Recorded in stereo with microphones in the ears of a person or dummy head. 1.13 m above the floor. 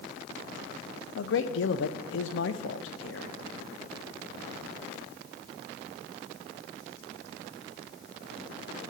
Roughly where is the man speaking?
Left.